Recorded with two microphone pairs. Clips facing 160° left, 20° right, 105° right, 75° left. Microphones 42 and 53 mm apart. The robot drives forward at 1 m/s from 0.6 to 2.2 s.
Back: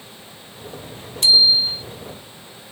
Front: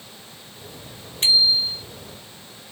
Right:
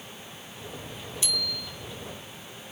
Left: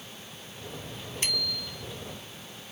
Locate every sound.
1.2 s a bicycle bell: 30° left; by 1.9 s 35° left